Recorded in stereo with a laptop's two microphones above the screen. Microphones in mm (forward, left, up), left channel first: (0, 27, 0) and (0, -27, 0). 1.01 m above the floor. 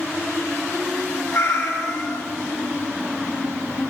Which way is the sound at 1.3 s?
65° left (ahead or behind).